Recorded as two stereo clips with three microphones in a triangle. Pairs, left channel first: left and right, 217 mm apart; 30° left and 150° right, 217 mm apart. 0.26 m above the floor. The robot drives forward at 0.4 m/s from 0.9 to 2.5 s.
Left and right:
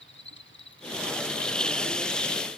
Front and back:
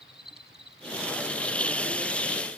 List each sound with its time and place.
0.0 s an insect: 125° left